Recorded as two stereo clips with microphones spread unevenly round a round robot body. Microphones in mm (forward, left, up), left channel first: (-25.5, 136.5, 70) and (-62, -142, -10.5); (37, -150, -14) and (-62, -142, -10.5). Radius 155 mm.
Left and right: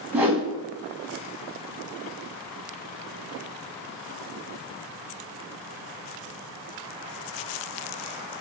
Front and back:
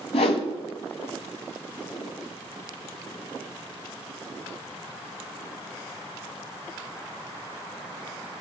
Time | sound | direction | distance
0.1 | a whoosh | 15° right | 1.0 m